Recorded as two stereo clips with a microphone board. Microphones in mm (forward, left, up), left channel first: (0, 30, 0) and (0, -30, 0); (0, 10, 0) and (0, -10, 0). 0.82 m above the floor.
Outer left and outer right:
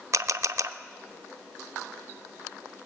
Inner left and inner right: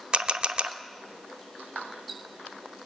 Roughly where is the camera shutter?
Right.